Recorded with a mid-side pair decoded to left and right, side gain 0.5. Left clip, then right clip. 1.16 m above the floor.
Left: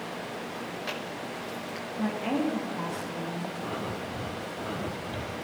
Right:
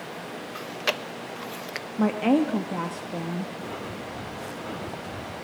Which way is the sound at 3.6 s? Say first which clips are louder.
Left 1 dB; straight ahead.